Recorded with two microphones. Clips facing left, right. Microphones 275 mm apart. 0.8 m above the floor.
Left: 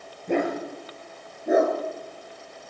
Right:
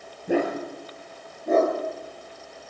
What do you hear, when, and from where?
0.3 s a dog barking: 5° right (ahead or behind), 5.5 m; by 1.8 s 15° left (ahead or behind), 4 m